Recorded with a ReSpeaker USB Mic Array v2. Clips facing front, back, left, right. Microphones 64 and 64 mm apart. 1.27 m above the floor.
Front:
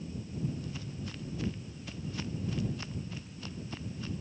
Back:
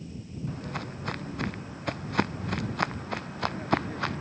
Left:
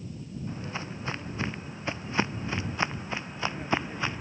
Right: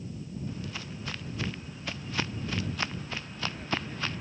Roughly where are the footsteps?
Behind left.